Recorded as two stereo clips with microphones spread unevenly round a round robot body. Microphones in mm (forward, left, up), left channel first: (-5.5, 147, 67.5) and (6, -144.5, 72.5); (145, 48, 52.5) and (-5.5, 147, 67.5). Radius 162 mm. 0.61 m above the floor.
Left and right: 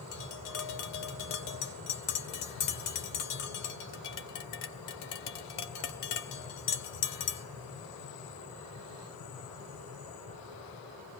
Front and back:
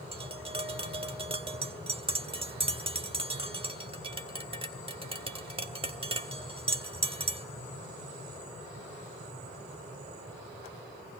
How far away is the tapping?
About 1.8 m.